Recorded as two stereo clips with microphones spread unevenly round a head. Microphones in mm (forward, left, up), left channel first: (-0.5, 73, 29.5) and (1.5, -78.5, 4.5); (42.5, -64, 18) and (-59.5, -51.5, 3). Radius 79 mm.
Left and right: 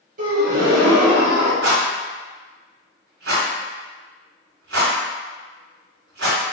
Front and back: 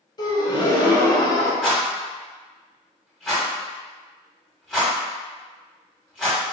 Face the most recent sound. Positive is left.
turn(degrees=-80)